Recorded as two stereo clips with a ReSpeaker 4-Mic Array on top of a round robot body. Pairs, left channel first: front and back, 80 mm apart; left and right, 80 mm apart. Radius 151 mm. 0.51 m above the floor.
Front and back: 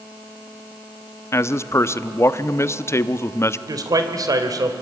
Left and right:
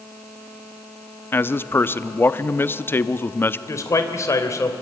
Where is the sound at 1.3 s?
40° left, 1.0 m.